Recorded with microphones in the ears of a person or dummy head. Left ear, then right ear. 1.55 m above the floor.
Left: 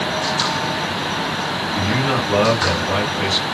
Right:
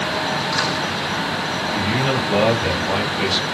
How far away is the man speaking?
About 1.8 m.